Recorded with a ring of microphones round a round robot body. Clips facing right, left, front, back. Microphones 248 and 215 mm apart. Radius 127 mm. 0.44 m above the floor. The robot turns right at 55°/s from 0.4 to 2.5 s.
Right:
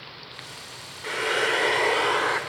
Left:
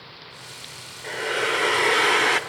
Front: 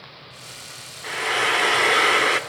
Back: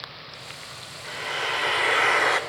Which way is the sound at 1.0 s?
15° right.